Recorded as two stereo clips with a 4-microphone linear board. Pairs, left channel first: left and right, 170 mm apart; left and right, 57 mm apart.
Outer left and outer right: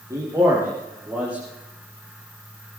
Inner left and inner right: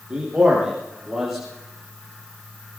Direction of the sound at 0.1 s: 20° right (ahead or behind).